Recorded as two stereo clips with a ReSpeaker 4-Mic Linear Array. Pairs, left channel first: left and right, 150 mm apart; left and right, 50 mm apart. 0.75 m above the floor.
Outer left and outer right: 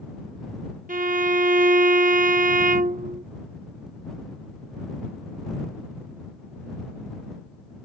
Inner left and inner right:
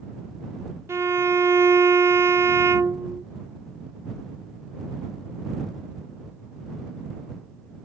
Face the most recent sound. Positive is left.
turn(degrees=-60)  # may be behind; listen again after turning